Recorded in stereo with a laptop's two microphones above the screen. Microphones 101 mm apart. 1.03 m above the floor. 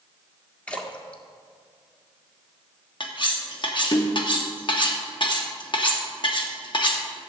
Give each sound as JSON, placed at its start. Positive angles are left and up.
{"t": 0.7, "sound": "a splash", "side_deg": 10, "distance_m": 1.4}
{"t": 3.0, "sound": "cutlery clinking", "side_deg": 50, "distance_m": 0.9}